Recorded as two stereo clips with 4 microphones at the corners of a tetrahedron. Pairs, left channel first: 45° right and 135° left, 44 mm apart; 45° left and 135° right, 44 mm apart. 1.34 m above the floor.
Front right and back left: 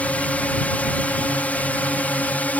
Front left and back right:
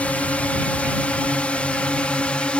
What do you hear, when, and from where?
0.0 s a drone: straight ahead; by 2.6 s 10° right